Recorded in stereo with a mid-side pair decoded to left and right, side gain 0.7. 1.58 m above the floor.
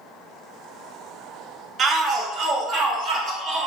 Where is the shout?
40° right, 0.7 m; by 3.7 s 45° right, 1.7 m.